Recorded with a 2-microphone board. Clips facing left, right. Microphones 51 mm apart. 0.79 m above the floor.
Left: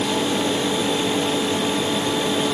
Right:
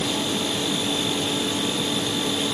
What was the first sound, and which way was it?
Only background noise.